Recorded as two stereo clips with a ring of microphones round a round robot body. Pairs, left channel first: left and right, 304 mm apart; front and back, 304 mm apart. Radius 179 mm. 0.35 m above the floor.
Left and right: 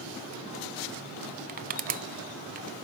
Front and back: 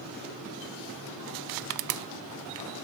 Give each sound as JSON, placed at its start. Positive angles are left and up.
{"t": 1.5, "sound": "crushing", "azimuth_deg": -155, "distance_m": 0.5}